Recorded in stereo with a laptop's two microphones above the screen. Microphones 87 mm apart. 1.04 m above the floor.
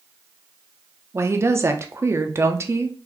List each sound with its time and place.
1.1 s a woman speaking: 30° right (ahead or behind), 0.6 m